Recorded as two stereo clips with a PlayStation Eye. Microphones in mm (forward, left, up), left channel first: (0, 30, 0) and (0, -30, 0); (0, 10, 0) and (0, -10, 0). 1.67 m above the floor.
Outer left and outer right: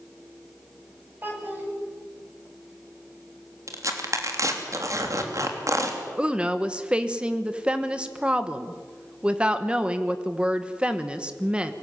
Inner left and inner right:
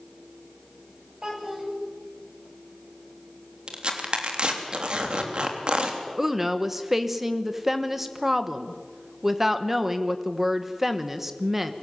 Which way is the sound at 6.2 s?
15° right (ahead or behind).